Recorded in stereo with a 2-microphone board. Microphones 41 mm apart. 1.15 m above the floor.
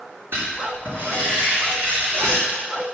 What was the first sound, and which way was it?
Writing, 65° right (ahead or behind).